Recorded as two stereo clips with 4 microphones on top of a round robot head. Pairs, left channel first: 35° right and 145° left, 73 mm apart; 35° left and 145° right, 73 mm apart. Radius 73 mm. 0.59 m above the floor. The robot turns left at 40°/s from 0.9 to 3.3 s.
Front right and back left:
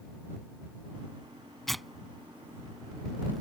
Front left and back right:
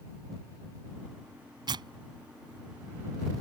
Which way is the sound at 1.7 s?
120° right.